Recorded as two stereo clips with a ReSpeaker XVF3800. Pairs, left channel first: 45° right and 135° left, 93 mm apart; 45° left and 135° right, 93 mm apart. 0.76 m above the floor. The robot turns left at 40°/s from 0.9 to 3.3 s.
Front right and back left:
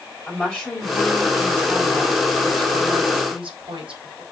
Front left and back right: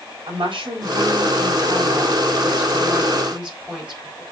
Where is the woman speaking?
120° right, 4 m; by 4.2 s 145° left, 4 m.